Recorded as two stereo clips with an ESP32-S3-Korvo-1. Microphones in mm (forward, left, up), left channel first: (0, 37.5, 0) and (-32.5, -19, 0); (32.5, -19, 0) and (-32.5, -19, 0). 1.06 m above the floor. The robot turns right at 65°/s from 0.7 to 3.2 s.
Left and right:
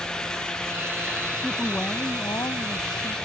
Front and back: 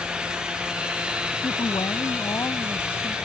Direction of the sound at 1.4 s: 25° right.